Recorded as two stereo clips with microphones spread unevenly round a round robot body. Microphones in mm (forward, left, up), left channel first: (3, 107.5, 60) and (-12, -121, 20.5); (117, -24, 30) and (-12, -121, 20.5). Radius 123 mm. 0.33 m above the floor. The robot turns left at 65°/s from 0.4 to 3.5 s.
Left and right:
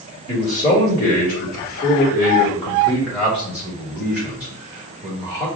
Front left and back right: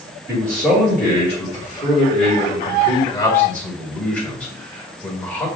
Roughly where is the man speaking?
Behind.